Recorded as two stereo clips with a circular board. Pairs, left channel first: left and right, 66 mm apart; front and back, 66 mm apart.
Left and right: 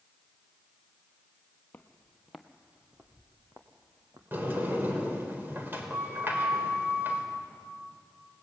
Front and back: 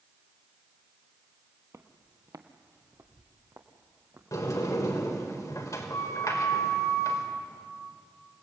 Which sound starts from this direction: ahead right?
A sliding door, at 4.3 s.